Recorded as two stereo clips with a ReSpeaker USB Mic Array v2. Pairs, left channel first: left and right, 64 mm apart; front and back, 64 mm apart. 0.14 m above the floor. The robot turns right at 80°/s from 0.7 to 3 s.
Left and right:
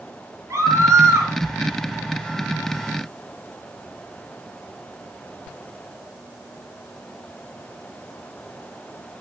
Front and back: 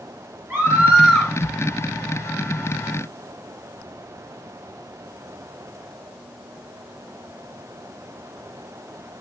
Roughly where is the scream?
Behind right.